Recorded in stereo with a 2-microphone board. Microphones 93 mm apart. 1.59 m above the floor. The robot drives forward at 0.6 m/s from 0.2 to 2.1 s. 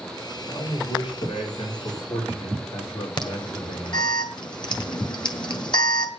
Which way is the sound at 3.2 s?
55° left (ahead or behind).